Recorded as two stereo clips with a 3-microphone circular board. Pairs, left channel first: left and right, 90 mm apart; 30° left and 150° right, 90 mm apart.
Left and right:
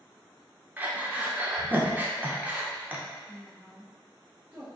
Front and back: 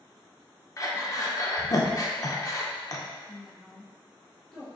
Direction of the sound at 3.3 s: 45° right.